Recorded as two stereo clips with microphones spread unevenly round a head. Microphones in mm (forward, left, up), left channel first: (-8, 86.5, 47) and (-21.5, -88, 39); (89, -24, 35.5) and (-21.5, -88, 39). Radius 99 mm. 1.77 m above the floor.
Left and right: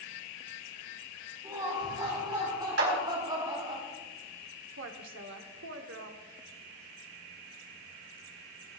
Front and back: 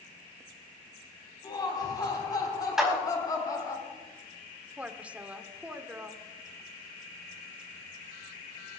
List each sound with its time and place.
1.4 s laughter: 25° right, 4 m; by 3.8 s 30° right, 2.5 m
2.8 s a clap: 65° right, 4.5 m
4.8 s a woman speaking: 70° right, 1.2 m